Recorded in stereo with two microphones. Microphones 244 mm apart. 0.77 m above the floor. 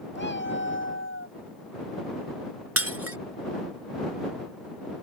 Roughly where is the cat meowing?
Left.